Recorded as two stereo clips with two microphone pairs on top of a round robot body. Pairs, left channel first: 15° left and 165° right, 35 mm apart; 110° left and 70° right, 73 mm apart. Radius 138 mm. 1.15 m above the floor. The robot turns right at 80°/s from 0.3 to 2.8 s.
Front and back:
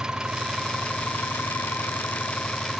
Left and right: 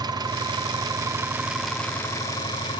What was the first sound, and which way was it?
An engine running, 90° right.